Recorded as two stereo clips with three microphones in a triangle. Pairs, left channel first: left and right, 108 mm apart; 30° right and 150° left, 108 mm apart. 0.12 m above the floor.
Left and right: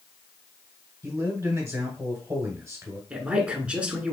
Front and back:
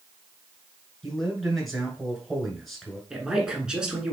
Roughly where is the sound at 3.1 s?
Behind right.